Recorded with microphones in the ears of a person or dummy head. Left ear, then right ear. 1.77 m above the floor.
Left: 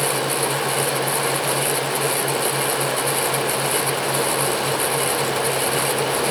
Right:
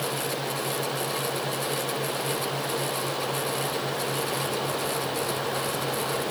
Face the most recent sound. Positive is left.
No sound to turn to.